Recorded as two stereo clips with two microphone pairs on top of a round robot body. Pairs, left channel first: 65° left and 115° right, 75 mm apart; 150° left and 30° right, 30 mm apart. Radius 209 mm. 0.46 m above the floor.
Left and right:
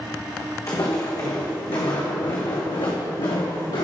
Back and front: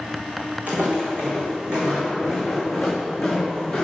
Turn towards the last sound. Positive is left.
turn(degrees=60)